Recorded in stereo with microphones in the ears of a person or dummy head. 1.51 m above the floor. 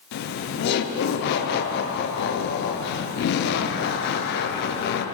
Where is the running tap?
No running tap in this recording.